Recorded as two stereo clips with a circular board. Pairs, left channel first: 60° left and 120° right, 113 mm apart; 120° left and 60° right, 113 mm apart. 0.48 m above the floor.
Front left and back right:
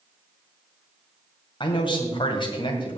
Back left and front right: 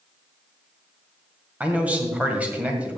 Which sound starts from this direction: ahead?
A man speaking, at 1.6 s.